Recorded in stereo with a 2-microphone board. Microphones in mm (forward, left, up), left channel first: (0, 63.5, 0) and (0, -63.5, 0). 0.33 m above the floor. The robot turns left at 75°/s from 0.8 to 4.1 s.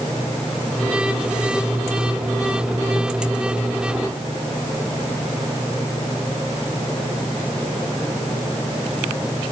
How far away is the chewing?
I don't hear chewing.